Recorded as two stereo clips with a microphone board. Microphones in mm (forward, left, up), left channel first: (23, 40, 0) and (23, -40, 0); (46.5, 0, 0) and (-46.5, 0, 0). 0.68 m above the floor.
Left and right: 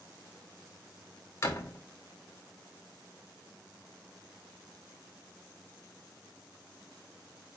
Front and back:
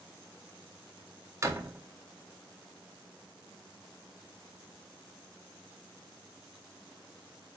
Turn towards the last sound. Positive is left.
turn(degrees=130)